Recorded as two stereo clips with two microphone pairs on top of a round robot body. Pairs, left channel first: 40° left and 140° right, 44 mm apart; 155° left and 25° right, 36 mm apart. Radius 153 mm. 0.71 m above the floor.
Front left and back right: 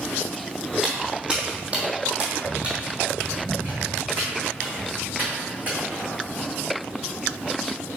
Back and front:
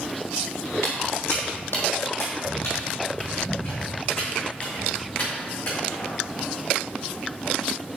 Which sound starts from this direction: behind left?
Footsteps, at 0.8 s.